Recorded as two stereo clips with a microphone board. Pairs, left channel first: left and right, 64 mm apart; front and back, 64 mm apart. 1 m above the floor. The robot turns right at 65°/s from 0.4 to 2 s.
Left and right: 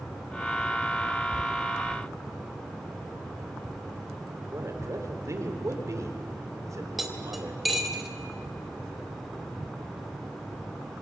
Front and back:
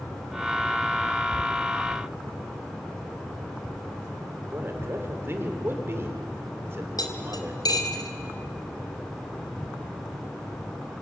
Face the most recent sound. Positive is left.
turn(degrees=0)